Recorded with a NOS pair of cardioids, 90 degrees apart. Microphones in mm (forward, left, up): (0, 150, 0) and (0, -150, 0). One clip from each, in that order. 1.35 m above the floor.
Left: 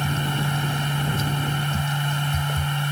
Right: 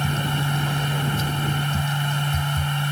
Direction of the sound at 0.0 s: 5° right.